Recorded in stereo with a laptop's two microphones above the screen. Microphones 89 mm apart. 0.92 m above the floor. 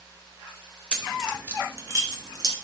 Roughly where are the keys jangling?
Centre.